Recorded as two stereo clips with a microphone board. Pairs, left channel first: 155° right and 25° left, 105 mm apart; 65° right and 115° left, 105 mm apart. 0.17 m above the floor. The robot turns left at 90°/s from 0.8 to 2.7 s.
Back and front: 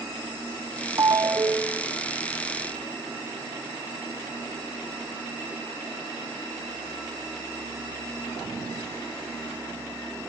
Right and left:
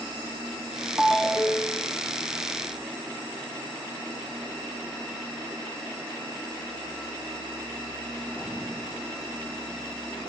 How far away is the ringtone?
About 0.6 m.